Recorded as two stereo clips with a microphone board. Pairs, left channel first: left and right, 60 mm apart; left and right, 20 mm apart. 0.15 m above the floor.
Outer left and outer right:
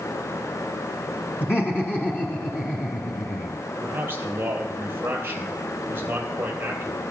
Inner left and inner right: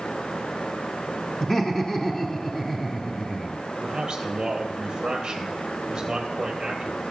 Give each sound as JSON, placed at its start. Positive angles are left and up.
{"t": 1.4, "sound": "laughter", "side_deg": 35, "distance_m": 1.3}
{"t": 3.8, "sound": "a man speaking", "side_deg": -35, "distance_m": 3.5}